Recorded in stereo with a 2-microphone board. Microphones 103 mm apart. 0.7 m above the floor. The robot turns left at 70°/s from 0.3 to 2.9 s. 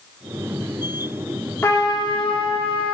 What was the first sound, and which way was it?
A trumpet, 155° left.